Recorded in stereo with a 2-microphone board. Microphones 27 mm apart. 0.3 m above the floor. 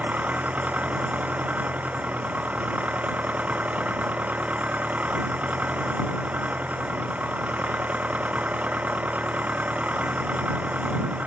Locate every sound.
0.0 s an engine running: 60° right (ahead or behind)